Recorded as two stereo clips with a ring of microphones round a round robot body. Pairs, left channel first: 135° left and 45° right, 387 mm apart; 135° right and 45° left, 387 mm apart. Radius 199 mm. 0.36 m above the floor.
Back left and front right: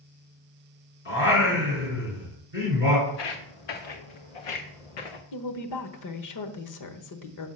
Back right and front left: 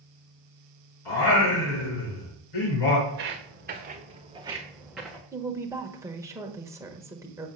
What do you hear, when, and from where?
1.1 s singing: 165° right, 5 m
3.1 s footsteps: 105° left, 2.0 m; by 5.2 s 140° left, 1.6 m
5.3 s a woman speaking: 125° left, 1.1 m